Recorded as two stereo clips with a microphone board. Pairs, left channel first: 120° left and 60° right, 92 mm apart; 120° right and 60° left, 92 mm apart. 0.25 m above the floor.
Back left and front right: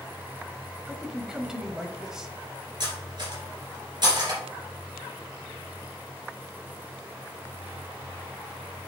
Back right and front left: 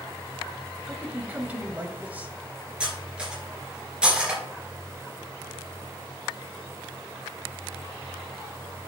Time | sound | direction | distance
0.9 | a man speaking | 15° left | 0.9 m
2.8 | cutlery clinking | 20° right | 2.5 m